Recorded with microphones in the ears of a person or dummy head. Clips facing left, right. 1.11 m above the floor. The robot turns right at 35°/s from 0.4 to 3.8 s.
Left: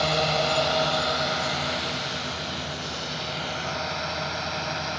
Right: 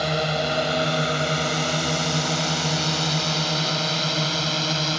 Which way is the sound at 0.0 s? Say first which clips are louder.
Even; 15° right (ahead or behind).